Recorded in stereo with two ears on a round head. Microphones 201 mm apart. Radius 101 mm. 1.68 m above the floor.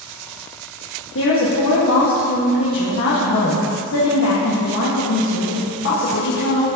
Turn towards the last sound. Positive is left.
turn(degrees=60)  # may be behind; listen again after turning